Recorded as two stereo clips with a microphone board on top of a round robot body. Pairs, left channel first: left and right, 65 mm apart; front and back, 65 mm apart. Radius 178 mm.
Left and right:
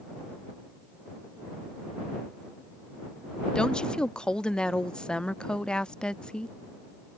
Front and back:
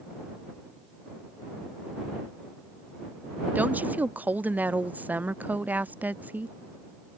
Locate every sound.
3.5 s a woman speaking: 150° left